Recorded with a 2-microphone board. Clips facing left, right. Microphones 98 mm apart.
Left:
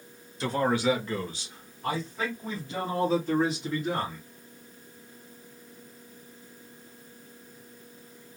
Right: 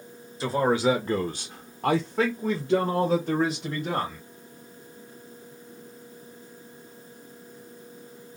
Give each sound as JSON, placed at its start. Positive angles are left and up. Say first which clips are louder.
{"t": 0.4, "sound": "a man speaking", "louder": "right 3 dB", "side_deg": -5, "distance_m": 0.7}